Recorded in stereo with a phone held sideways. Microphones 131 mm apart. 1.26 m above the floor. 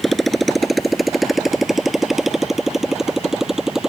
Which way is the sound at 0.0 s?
Centre (ahead or behind).